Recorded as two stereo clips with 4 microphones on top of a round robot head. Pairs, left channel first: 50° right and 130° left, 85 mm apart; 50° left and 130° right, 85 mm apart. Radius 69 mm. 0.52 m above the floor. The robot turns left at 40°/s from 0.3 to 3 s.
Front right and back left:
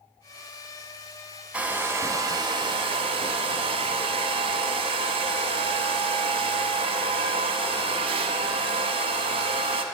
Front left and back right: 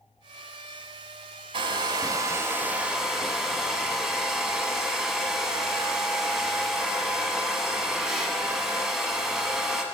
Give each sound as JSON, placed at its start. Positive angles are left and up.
{"t": 1.5, "sound": "a hair dryer", "azimuth_deg": -155, "distance_m": 0.6}